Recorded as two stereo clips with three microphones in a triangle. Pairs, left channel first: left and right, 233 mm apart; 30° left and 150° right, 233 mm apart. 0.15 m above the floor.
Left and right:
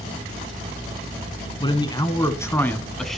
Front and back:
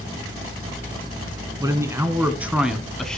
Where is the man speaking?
145° left, 1.6 m; by 3.2 s straight ahead, 1.3 m.